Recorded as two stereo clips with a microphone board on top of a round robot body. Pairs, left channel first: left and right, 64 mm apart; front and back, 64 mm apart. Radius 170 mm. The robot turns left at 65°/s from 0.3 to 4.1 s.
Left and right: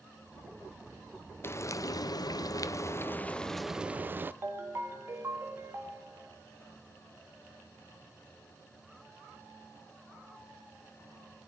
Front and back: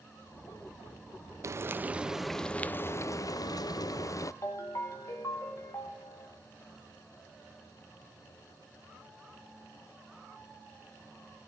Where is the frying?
145° left, 0.6 m; by 4.3 s 30° right, 0.6 m.